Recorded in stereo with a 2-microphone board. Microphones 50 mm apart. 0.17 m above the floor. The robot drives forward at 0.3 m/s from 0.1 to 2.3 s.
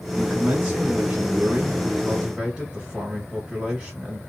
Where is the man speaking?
20° right (ahead or behind), 1.7 m; by 4.2 s 15° right (ahead or behind), 2 m.